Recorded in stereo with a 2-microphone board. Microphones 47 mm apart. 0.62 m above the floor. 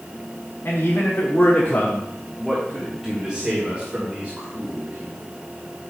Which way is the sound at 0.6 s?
65° left (ahead or behind).